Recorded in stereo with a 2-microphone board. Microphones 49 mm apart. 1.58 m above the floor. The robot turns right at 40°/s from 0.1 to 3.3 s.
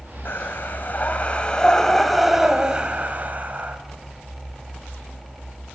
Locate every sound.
0.2 s breathing: 100° left, 2 m; by 3.8 s 140° right, 2 m